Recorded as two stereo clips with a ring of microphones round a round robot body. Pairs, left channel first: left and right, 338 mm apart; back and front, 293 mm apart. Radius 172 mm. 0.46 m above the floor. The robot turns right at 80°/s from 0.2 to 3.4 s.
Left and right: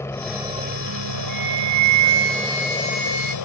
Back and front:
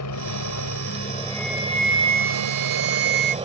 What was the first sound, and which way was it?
A helicopter, 170° left.